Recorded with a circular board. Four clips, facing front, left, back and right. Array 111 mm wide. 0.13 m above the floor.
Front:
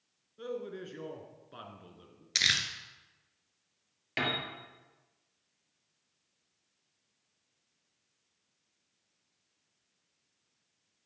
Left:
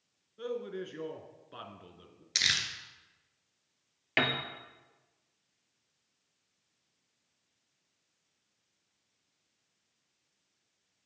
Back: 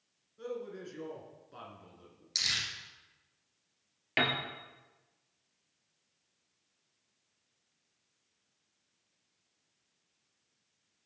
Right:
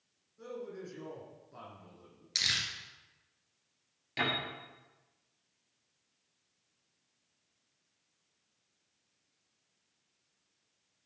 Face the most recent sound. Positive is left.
turn(degrees=110)